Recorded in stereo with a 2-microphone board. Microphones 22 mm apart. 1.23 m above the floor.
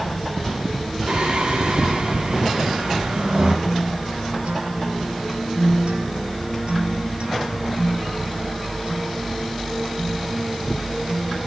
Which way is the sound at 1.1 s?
55° right (ahead or behind).